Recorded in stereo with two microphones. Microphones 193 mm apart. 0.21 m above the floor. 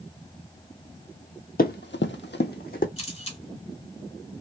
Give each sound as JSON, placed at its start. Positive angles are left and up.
{"t": 1.6, "sound": "running footsteps", "side_deg": 50, "distance_m": 0.6}
{"t": 3.0, "sound": "a camera shutter", "side_deg": 30, "distance_m": 1.8}